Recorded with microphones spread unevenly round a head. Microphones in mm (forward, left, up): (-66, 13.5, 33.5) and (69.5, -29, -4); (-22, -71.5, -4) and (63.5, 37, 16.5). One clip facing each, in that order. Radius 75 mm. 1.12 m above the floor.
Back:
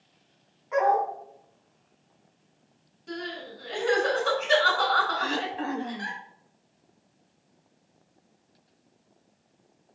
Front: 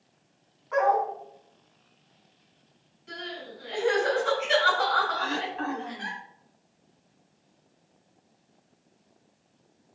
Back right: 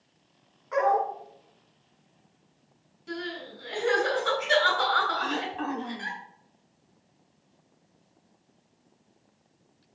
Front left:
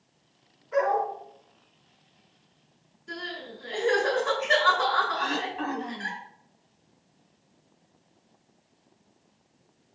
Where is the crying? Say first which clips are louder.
Back 3 dB, back right 3 dB; 150° right, 5.5 m.